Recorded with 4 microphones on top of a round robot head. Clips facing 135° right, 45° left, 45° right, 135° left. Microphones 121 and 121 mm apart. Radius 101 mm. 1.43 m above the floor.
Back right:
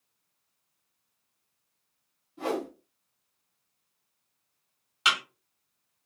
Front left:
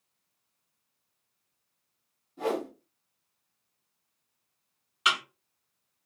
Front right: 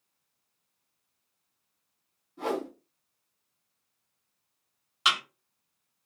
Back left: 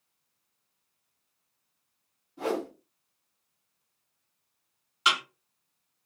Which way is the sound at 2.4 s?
65° left.